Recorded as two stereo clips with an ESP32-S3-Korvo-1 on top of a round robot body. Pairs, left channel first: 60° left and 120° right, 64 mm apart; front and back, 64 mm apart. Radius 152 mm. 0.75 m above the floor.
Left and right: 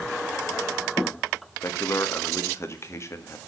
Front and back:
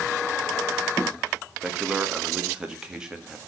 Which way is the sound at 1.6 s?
100° left.